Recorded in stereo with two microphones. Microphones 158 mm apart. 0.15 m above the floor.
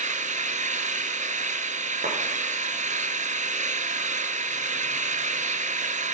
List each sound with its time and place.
0.0 s an engine running: 50° right (ahead or behind), 1.0 m
2.0 s a clap: 80° right, 6.5 m